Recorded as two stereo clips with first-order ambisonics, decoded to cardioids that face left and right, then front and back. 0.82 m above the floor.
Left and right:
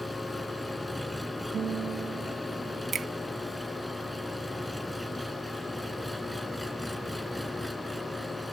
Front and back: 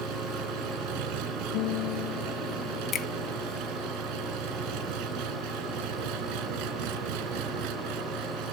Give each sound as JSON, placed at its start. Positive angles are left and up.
{"t": 0.0, "sound": "an engine running", "azimuth_deg": 180}
{"t": 1.5, "sound": "a guitar", "azimuth_deg": -25}
{"t": 2.9, "sound": "a finger snap", "azimuth_deg": -40}